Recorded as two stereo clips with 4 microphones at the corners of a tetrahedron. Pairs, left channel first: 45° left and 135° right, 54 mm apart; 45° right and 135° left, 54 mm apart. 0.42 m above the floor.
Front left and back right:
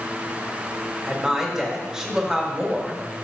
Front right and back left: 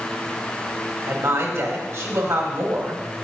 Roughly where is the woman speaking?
Behind left.